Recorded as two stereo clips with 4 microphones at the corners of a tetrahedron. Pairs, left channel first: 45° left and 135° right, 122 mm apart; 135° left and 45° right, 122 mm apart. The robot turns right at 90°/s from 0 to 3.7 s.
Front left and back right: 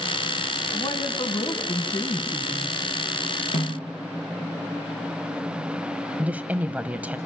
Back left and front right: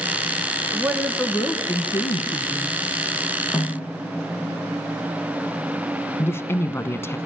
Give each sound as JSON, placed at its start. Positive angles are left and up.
{"t": 0.7, "sound": "a woman speaking", "azimuth_deg": 25, "distance_m": 1.5}
{"t": 3.5, "sound": "a snare drum", "azimuth_deg": 45, "distance_m": 3.5}
{"t": 6.2, "sound": "a woman speaking", "azimuth_deg": 165, "distance_m": 1.0}